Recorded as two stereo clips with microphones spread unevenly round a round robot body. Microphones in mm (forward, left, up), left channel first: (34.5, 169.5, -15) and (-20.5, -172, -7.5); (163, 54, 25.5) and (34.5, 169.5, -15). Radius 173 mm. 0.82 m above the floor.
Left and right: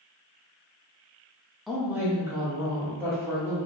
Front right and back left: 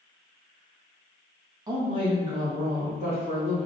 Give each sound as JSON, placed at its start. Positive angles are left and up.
{"t": 1.7, "sound": "a woman speaking", "azimuth_deg": 170, "distance_m": 0.6}